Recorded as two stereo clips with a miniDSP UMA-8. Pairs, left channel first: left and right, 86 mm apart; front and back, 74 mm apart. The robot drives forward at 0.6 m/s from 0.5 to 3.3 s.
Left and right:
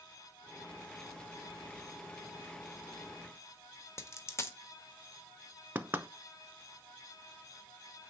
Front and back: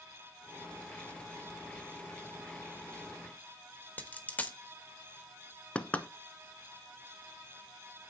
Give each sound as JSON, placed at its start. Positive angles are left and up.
{"t": 4.0, "sound": "a dropped coin", "azimuth_deg": 55, "distance_m": 1.1}
{"t": 5.8, "sound": "knocking", "azimuth_deg": -50, "distance_m": 0.8}